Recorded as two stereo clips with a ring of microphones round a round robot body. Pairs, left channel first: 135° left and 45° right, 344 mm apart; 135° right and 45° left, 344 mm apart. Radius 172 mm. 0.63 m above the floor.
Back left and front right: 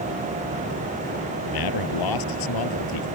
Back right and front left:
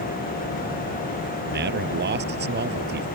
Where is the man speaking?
105° left.